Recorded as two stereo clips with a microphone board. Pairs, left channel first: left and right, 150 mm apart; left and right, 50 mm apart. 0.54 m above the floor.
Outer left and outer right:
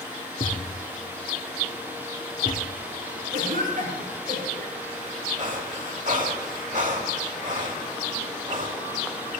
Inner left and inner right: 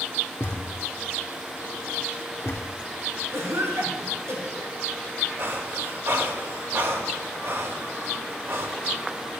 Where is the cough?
70° right (ahead or behind), 6.5 m.